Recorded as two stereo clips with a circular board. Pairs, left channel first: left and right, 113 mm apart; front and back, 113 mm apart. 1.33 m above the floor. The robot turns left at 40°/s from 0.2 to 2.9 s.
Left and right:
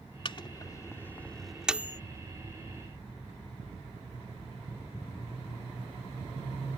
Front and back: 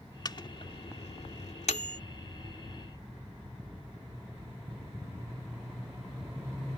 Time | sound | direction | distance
0.2 | a microwave | 50° left | ?